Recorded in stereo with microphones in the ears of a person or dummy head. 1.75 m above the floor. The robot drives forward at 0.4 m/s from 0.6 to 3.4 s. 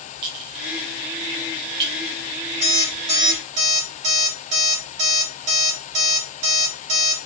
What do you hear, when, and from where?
0.2 s a clink: 25° right (ahead or behind), 1.0 m; by 1.9 s 20° right (ahead or behind), 1.3 m
2.6 s an alarm clock: 40° right (ahead or behind), 2.5 m; by 7.2 s 35° right (ahead or behind), 2.5 m